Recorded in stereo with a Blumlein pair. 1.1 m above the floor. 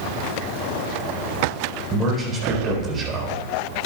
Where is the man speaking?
20° right, 4.5 m.